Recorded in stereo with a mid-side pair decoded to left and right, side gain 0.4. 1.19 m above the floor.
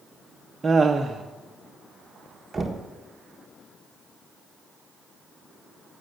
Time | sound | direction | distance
0.6 | laughter | 25° right | 0.8 m
2.5 | knocking | 25° right | 1.3 m